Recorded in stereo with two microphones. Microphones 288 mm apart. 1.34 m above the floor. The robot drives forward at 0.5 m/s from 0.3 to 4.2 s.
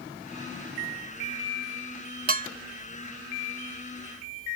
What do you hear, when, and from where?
2.3 s dishes clattering: 35° right (ahead or behind); by 2.5 s 30° right (ahead or behind)